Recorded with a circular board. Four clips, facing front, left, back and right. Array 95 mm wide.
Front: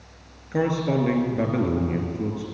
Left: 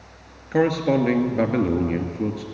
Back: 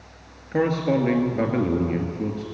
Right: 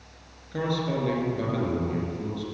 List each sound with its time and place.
0.5 s a man speaking: 100° left, 1.8 m